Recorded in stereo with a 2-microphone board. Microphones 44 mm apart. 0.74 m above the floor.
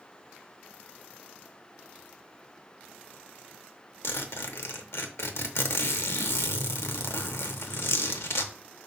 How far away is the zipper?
About 0.7 m.